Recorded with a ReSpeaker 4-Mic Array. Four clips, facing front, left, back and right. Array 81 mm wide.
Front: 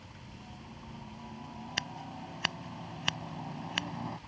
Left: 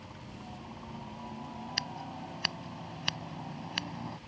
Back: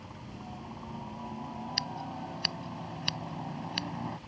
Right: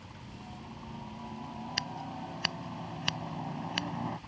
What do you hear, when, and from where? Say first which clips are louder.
0.0 s a helicopter: left 1 dB, back 6 dB; 165° left; by 4.3 s 95° right
1.8 s scissors: right 1 dB, back 3 dB; 5° right